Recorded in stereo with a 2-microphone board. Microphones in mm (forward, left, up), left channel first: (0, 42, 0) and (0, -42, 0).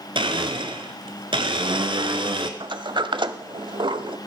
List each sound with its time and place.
0.1 s a blender: 80° right, 1.1 m
2.6 s a sliding door: 70° right (ahead or behind), 0.7 m